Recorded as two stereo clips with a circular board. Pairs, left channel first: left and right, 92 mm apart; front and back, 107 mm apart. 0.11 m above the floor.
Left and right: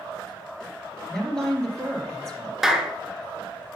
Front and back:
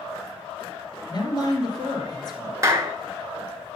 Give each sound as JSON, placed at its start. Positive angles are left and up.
{"t": 1.1, "sound": "a woman speaking", "azimuth_deg": 10, "distance_m": 2.0}
{"t": 2.6, "sound": "a clap", "azimuth_deg": -175, "distance_m": 1.0}